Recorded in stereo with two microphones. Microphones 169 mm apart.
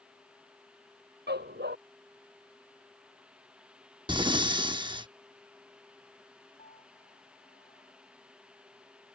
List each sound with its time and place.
1.3 s a dog barking: 85° right
4.1 s breathing: 25° right (ahead or behind)
6.6 s a piano: 50° left (ahead or behind)